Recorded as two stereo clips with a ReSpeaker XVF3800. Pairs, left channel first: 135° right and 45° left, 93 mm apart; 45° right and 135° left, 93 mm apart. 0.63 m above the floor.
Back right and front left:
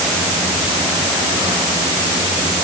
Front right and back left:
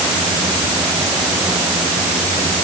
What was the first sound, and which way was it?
Only background noise.